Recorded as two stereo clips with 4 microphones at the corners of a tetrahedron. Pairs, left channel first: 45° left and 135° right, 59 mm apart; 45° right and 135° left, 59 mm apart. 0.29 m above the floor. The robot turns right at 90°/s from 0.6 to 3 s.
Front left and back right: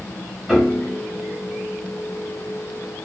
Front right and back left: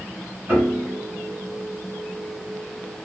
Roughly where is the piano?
Behind left.